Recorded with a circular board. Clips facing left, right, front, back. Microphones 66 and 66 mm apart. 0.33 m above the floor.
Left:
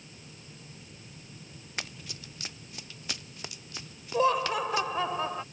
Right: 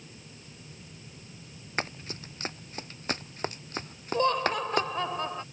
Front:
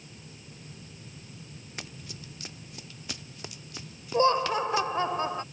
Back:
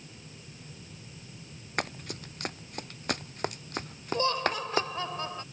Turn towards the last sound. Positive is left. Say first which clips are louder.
# left 1 dB, front 5 dB
turn(degrees=10)